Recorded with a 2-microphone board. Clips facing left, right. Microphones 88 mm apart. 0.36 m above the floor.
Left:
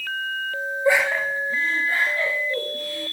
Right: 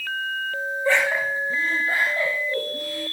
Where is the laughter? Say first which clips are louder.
Left 2 dB; 20° left (ahead or behind), 0.9 m; by 3.0 s 50° right (ahead or behind), 3 m.